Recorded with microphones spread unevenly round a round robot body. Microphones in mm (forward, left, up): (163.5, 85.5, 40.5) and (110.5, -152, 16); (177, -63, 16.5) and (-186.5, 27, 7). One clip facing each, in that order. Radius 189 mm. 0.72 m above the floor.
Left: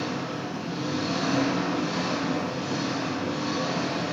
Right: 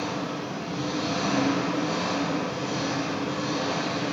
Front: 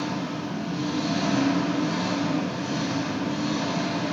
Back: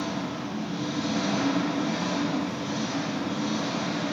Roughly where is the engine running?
Ahead.